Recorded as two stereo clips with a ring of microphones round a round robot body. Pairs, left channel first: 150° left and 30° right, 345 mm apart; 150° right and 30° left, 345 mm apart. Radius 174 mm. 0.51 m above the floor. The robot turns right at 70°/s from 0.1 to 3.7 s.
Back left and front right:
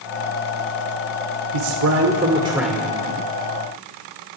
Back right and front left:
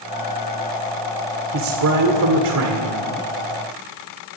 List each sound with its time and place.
1.5 s a man speaking: 20° right, 1.7 m; by 3.0 s 80° left, 1.7 m